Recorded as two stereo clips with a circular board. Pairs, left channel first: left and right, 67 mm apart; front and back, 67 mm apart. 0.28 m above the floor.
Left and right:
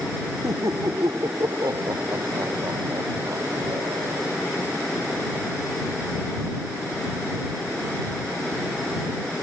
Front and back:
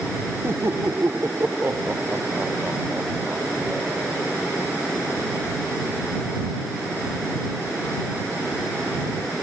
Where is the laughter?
125° right; by 4.2 s 115° right.